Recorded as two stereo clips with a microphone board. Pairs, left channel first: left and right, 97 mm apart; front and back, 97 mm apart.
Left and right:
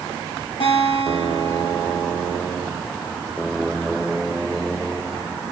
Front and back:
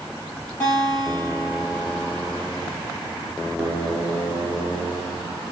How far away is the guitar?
About 2.5 m.